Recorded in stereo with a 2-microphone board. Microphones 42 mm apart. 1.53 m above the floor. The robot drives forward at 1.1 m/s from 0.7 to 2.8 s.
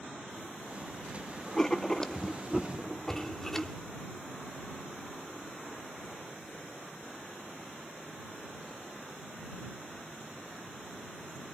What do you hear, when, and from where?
1.6 s writing: 15° left (ahead or behind), 1.0 m; by 3.8 s 10° left (ahead or behind), 1.5 m